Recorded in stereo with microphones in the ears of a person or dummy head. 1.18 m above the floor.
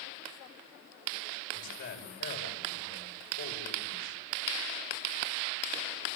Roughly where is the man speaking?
Left.